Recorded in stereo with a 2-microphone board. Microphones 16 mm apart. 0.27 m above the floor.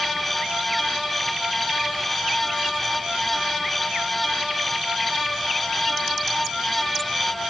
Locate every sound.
Only background noise.